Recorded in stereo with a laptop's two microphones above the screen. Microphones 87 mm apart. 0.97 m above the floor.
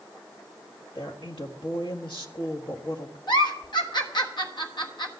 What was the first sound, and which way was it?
A woman speaking, 70° left (ahead or behind).